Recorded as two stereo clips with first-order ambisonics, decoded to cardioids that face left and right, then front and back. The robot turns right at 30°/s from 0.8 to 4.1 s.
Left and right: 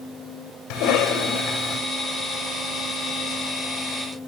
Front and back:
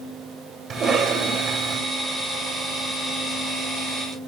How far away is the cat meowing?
No cat meowing in this recording.